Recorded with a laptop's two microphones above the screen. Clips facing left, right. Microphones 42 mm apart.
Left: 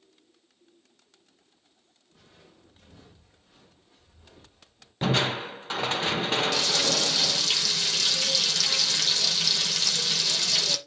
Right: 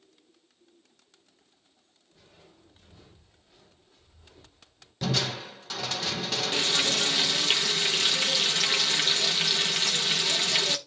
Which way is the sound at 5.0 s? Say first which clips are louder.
Left 4 dB; 30° left (ahead or behind).